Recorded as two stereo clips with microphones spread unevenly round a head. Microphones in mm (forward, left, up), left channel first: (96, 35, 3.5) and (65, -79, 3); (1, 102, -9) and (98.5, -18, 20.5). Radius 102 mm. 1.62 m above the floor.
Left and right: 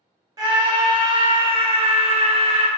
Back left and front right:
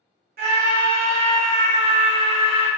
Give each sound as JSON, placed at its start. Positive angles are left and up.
{"t": 0.4, "sound": "a scream", "azimuth_deg": -50, "distance_m": 1.3}